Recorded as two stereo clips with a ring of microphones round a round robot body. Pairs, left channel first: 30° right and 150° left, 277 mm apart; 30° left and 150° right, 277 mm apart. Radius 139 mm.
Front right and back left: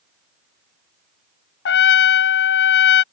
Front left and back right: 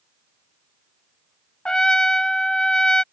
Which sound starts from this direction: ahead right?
A trumpet, at 1.6 s.